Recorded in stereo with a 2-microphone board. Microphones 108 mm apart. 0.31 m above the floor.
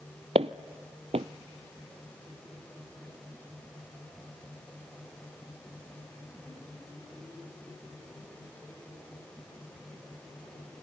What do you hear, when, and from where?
0.3 s footsteps: 70° right (ahead or behind), 0.6 m